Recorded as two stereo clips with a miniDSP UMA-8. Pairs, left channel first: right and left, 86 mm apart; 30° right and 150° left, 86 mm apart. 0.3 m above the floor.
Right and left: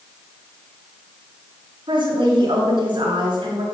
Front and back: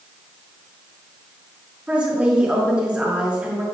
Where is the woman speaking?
75° left, 4.5 m.